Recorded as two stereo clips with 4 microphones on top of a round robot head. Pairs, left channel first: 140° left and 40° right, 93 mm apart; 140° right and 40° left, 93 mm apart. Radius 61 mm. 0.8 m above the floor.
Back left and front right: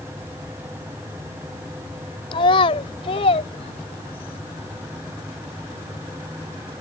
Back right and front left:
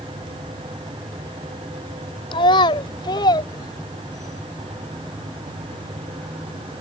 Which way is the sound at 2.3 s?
Straight behind.